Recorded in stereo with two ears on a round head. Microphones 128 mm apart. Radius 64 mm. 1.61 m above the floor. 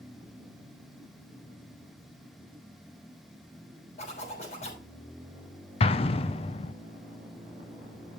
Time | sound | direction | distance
4.0 | a zipper | 45° left (ahead or behind) | 6 m
5.8 | an explosion | 40° left (ahead or behind) | 0.7 m